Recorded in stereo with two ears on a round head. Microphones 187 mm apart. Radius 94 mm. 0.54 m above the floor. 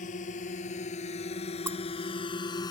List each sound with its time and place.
0.0 s a drone: 40° left (ahead or behind); by 2.7 s 20° left (ahead or behind)
1.7 s breaking glass: 10° right (ahead or behind)